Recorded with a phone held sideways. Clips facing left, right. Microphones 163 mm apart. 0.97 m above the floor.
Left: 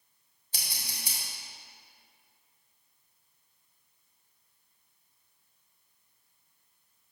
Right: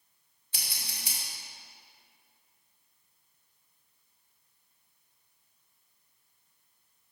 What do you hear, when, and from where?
0.5 s scissors: 35° left (ahead or behind), 3 m